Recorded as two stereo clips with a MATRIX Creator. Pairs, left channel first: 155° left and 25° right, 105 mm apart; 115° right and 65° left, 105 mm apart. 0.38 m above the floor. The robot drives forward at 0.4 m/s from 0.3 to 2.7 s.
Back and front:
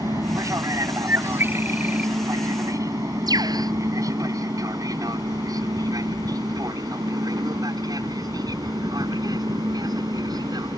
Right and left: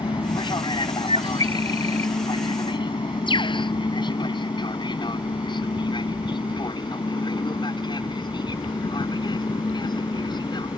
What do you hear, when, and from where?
0.0 s an aircraft: 80° right; by 10.8 s 70° right
1.1 s a bird: 45° left; by 2.1 s 55° left
3.3 s a bird: 75° right